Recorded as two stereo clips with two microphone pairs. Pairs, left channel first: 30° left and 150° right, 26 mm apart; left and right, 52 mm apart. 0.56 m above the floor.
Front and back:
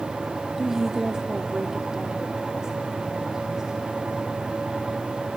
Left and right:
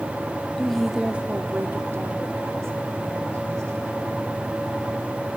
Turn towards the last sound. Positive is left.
turn(degrees=-80)